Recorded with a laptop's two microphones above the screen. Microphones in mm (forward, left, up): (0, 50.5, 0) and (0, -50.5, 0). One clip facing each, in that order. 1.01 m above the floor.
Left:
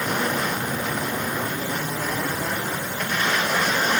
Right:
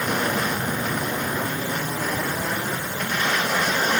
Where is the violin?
I don't hear a violin.